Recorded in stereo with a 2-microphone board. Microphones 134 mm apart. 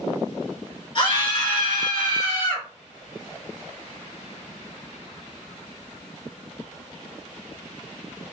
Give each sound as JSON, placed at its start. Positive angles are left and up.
{"t": 0.9, "sound": "a scream", "side_deg": 40, "distance_m": 1.5}